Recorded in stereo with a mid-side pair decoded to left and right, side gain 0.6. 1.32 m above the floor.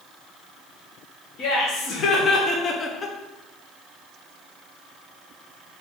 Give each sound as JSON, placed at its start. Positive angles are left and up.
{"t": 1.4, "sound": "laughter", "azimuth_deg": 50, "distance_m": 1.3}